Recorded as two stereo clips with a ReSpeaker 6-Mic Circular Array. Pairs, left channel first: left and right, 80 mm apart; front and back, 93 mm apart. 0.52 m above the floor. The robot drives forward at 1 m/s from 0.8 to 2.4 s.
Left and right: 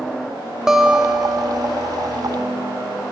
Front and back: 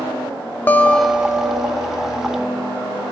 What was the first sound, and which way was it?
A guitar, 15° right.